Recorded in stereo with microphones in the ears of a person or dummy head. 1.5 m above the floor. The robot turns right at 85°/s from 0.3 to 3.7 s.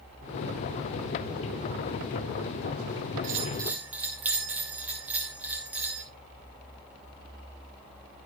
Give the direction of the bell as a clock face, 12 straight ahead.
2 o'clock.